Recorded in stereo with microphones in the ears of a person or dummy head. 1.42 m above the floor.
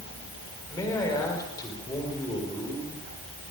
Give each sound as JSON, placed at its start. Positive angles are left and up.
{"t": 0.7, "sound": "a man speaking", "side_deg": 20, "distance_m": 5.5}